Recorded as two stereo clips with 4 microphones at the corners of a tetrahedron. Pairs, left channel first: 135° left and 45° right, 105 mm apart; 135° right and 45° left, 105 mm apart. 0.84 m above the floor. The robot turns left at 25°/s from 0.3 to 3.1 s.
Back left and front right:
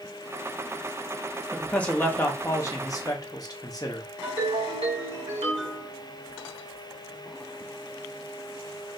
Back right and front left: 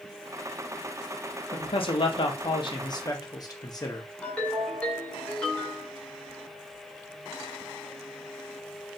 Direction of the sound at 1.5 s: 140° right.